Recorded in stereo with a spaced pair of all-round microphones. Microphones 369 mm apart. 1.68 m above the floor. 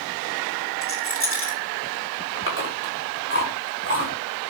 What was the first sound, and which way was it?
A rattle, 35° left (ahead or behind).